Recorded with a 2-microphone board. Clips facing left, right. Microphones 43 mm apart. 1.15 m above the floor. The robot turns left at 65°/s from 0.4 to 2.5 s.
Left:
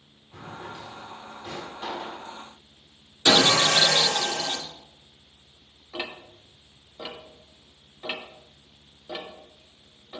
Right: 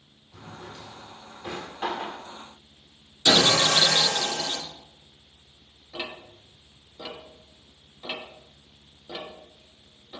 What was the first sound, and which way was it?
A drawer, 40° left (ahead or behind).